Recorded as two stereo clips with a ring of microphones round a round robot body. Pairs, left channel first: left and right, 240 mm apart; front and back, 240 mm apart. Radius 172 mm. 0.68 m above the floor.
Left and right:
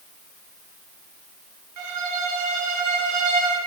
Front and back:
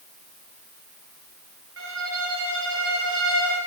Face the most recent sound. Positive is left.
turn(degrees=-125)